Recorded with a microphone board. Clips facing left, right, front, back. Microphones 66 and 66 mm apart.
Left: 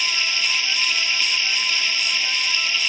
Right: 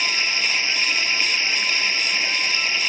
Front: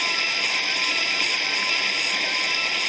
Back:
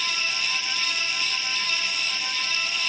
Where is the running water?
30° right.